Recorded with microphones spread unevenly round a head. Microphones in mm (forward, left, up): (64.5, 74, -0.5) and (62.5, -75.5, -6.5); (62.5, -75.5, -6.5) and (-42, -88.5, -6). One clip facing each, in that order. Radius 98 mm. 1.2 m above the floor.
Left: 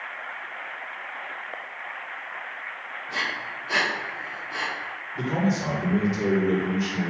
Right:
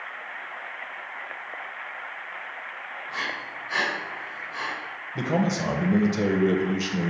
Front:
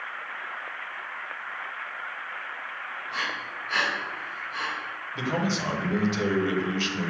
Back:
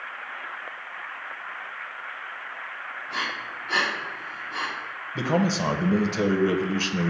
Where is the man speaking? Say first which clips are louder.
Even, back 4 dB; 125° right, 0.6 m.